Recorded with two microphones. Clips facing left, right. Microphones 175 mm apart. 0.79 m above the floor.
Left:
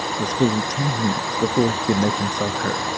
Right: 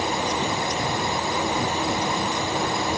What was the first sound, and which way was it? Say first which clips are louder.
A man speaking: left 6 dB; 85° left.